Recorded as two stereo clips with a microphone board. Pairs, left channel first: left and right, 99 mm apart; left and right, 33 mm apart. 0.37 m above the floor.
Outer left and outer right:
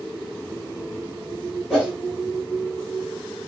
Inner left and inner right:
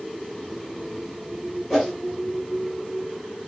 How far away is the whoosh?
About 3 m.